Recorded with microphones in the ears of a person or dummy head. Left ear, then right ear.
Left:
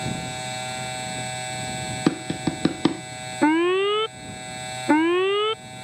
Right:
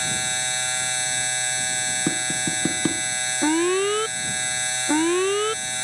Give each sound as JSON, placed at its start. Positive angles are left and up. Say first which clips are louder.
{"t": 0.0, "sound": "a machine running", "louder": "right 5 dB", "side_deg": -70}
{"t": 2.1, "sound": "tapping", "louder": "right 1 dB", "side_deg": 20}
{"t": 3.4, "sound": "an alarm", "louder": "left 3 dB", "side_deg": 15}